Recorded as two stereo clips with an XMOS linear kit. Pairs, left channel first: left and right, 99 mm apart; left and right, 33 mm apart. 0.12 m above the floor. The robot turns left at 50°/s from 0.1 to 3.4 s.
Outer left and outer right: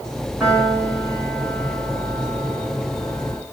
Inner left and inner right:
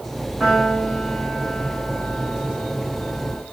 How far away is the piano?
About 7 m.